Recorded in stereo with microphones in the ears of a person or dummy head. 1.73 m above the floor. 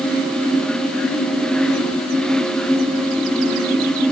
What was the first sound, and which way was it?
Only background noise.